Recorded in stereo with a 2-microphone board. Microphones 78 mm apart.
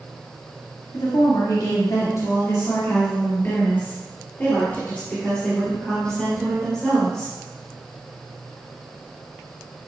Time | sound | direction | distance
0.9 | a woman speaking | 70° left (ahead or behind) | 2 m